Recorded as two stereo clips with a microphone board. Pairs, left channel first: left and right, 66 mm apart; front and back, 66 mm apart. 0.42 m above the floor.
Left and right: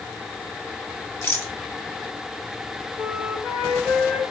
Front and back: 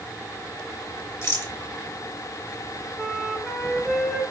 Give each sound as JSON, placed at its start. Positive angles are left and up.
{"t": 1.2, "sound": "a rattle", "azimuth_deg": 40, "distance_m": 1.1}
{"t": 3.0, "sound": "a flute", "azimuth_deg": -120, "distance_m": 1.5}